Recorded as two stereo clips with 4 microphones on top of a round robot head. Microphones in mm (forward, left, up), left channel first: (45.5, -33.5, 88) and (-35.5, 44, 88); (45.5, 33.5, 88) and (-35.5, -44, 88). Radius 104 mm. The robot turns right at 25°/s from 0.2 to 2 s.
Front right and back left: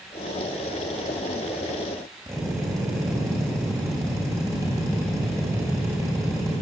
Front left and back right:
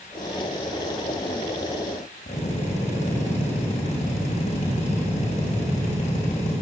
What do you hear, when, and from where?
2.3 s a drill: 70° left, 7 m